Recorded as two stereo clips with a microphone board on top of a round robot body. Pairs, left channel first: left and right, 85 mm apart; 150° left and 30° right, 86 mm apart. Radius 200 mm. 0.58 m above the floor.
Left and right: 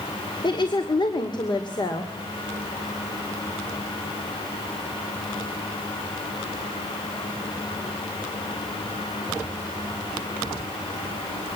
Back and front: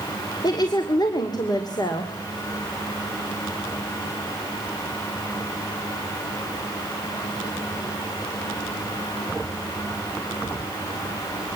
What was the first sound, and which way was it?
A woman speaking, 115° left.